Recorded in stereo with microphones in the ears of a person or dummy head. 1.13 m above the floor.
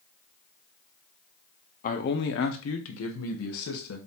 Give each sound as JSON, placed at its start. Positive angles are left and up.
{"t": 1.8, "sound": "a man speaking", "side_deg": 40, "distance_m": 0.7}